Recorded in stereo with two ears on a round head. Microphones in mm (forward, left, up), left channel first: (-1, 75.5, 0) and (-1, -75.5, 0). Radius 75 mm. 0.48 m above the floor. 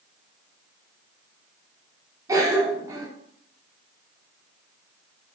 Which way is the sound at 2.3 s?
20° right (ahead or behind).